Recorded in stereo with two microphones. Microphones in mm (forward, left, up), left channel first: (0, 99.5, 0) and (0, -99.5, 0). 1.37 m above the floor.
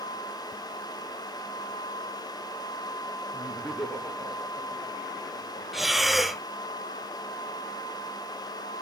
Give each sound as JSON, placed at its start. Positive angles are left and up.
{"t": 3.3, "sound": "laughter", "side_deg": -10, "distance_m": 2.0}
{"t": 5.7, "sound": "breathing", "side_deg": 0, "distance_m": 0.6}